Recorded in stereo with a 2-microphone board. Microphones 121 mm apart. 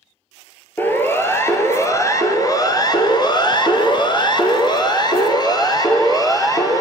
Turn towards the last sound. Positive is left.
turn(degrees=30)  # may be behind; listen again after turning